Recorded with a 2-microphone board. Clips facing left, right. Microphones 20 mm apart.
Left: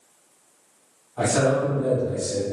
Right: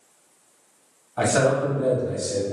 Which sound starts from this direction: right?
A man speaking, at 1.2 s.